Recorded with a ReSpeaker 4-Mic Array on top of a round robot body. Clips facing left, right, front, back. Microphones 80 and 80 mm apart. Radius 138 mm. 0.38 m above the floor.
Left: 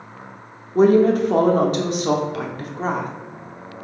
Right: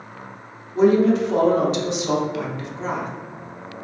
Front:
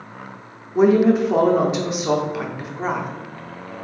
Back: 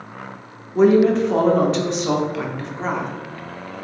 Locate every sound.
0.8 s a woman speaking: 80° left, 1.0 m